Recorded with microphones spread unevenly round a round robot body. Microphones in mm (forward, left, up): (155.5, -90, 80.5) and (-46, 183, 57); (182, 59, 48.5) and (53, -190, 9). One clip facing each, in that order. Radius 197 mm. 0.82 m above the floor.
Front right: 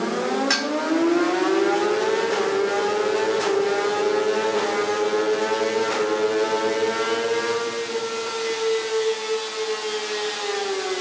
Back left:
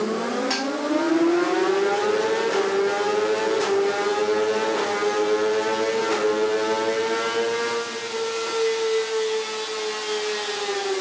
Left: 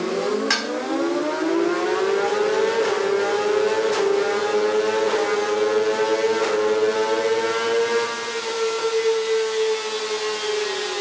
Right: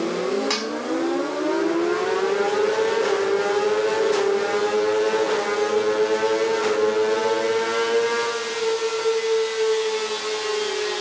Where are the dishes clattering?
Straight ahead, 5 m.